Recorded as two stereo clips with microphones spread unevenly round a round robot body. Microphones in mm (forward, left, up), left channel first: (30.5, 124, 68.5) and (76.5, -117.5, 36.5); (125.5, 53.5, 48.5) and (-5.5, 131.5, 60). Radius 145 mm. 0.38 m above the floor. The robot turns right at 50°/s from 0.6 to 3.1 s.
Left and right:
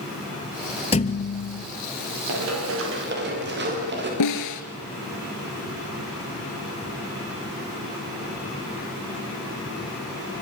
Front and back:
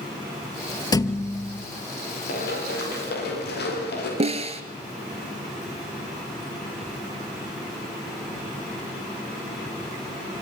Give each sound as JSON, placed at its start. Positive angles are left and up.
{"t": 0.9, "sound": "a thud", "azimuth_deg": 35, "distance_m": 2.0}
{"t": 2.3, "sound": "running footsteps", "azimuth_deg": -70, "distance_m": 10.0}
{"t": 4.2, "sound": "a snare drum", "azimuth_deg": 100, "distance_m": 2.0}